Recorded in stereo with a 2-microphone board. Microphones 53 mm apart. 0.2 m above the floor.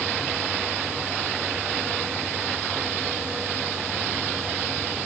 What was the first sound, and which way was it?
Only background noise.